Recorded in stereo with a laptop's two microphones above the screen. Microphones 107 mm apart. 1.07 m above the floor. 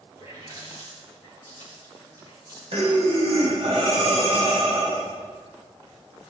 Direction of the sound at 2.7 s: 60° right (ahead or behind).